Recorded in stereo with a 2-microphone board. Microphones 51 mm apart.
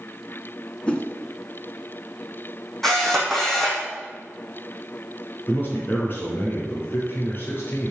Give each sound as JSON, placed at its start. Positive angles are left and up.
{"t": 0.9, "sound": "a whoosh", "side_deg": 20, "distance_m": 1.7}
{"t": 2.8, "sound": "a camera shutter", "side_deg": 5, "distance_m": 4.0}
{"t": 5.5, "sound": "a man speaking", "side_deg": 40, "distance_m": 2.5}